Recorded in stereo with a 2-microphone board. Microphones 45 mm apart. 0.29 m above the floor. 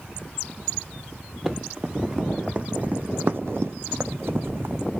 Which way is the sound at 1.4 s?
10° right (ahead or behind).